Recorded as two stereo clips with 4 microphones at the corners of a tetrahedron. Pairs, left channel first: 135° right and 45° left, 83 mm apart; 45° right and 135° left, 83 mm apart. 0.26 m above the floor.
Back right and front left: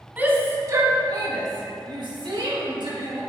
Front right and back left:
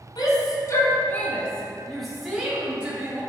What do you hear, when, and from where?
0.2 s a shout: 25° right, 2 m; by 3.2 s 60° left, 4 m